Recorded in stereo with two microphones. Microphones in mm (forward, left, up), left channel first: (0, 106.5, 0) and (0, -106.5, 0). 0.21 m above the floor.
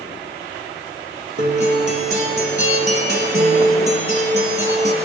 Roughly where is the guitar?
Right.